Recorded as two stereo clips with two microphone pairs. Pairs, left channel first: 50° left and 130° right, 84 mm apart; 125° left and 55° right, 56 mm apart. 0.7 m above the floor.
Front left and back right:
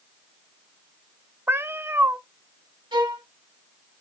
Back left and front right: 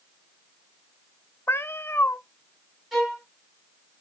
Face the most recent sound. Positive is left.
turn(degrees=-140)